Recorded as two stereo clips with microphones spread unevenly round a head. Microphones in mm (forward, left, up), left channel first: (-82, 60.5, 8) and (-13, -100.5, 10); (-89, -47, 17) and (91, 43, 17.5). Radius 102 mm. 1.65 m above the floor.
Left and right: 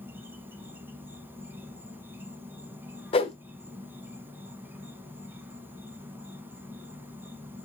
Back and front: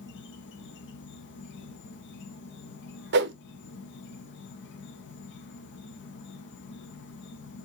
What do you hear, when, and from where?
0.0 s an insect: 145° right, 0.8 m
3.1 s a whoosh: 50° left, 0.5 m